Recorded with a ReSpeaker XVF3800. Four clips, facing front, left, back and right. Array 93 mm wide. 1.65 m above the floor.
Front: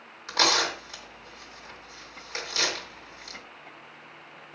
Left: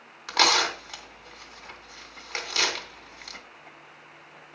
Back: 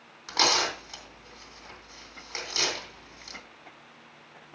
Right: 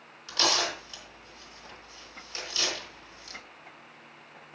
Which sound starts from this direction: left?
Tearing paper, at 0.3 s.